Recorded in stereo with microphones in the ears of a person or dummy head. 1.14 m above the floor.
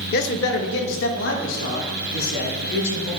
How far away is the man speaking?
About 0.8 m.